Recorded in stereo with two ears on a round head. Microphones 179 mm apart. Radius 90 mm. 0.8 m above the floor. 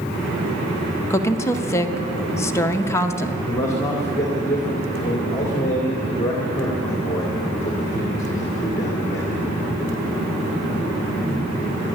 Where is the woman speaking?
15° left (ahead or behind), 0.6 m.